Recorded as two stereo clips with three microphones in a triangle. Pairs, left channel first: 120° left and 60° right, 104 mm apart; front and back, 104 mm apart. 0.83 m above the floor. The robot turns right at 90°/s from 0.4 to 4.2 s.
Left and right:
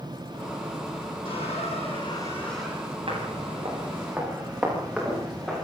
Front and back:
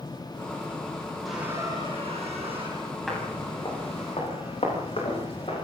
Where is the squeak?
90° left, 6.5 m; by 3.0 s 120° right, 6.5 m.